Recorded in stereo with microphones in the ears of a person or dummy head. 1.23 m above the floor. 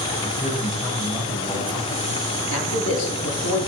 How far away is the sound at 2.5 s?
About 2.5 m.